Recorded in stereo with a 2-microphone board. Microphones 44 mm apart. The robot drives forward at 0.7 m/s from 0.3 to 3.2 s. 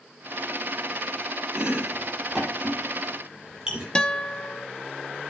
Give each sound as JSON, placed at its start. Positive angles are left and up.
{"t": 1.6, "sound": "chopping", "side_deg": -25, "distance_m": 7.5}
{"t": 4.0, "sound": "a guitar", "side_deg": 20, "distance_m": 0.9}